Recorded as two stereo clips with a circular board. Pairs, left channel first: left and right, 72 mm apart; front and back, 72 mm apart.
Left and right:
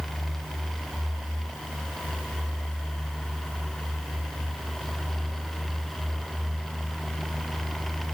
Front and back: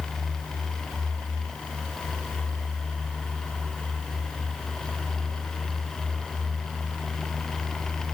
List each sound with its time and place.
Only background noise.